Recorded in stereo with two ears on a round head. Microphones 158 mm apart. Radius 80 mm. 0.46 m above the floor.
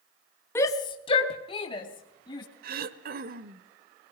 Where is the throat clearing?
60° right (ahead or behind), 1.0 m.